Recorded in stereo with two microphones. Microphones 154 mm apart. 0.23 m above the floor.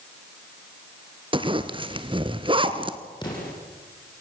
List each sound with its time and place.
1.3 s a zipper: 30° right (ahead or behind), 1.3 m
3.2 s an explosion: 30° left (ahead or behind), 8.5 m